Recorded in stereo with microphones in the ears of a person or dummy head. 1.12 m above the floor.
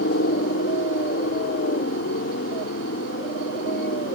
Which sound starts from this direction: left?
A helicopter, at 0.0 s.